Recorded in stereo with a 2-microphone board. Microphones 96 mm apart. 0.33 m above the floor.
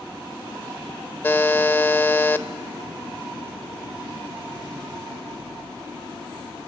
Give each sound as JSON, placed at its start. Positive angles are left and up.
{"t": 1.2, "sound": "a buzzer", "side_deg": 20, "distance_m": 0.6}